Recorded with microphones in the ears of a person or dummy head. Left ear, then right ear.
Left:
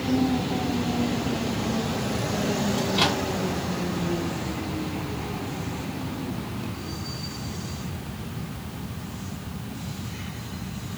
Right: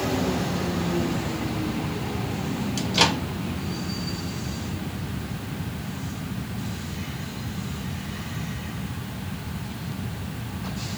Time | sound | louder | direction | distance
2.8 | a microwave | right 4 dB | 70° right (ahead or behind) | 1.1 m